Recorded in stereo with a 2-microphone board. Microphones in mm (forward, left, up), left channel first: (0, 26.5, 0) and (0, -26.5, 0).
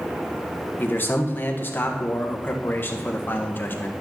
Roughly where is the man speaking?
Left.